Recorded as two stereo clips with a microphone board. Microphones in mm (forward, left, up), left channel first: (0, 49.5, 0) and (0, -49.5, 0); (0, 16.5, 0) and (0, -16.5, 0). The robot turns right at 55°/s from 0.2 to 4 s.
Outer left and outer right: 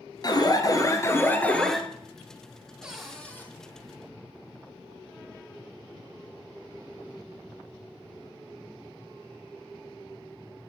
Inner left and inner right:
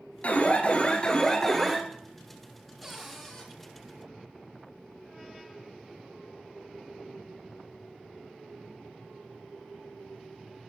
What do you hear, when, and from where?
0.2 s an alarm: 90° left, 1.2 m; by 1.8 s straight behind, 1.2 m
2.8 s a cupboard door: 10° right, 3 m; by 3.5 s 25° left, 3 m